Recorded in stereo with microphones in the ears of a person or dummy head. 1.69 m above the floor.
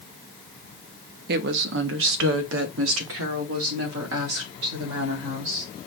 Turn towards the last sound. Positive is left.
turn(degrees=-80)